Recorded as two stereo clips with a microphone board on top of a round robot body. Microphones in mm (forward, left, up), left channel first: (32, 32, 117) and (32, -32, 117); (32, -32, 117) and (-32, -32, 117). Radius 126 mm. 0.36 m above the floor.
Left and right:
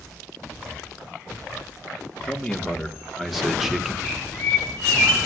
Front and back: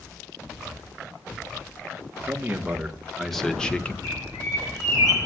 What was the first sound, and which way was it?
A man speaking, 165° left.